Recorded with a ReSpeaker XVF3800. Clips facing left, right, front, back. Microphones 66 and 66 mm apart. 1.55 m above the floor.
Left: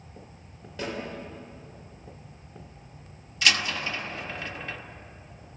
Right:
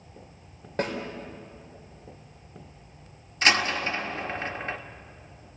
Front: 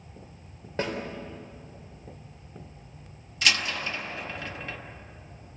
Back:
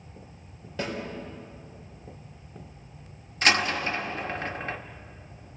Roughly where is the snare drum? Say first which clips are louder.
Right 5 dB, front 2 dB; ahead right.